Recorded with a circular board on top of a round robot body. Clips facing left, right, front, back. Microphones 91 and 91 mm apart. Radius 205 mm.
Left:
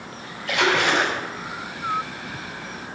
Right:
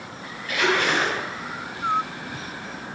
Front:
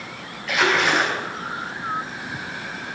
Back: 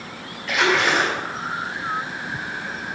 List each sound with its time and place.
0.5 s a splash: 90° left, 3 m